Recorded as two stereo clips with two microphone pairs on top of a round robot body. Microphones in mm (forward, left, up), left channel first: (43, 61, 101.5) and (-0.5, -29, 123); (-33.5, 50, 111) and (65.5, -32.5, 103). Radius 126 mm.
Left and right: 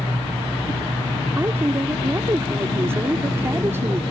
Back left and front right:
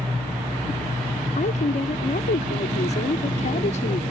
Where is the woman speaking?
175° left.